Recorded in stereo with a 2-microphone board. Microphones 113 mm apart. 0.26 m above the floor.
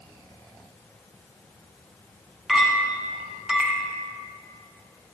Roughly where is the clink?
Centre.